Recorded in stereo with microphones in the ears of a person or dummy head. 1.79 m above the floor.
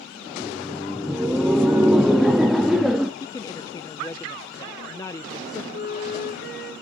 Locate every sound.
0.3 s laughter: 5° right (ahead or behind), 0.6 m
3.2 s a woman speaking: 25° left (ahead or behind), 0.5 m
5.7 s a flute: 65° left (ahead or behind), 5 m